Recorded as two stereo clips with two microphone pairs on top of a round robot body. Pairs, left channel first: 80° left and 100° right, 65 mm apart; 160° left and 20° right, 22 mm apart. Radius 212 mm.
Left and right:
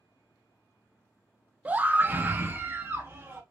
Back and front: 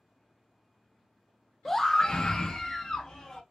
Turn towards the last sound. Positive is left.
turn(degrees=-155)